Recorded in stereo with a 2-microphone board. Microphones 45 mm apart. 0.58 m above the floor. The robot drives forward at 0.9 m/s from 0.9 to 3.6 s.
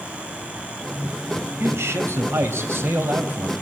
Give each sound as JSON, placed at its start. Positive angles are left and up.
{"t": 1.6, "sound": "a man speaking", "side_deg": -75, "distance_m": 3.0}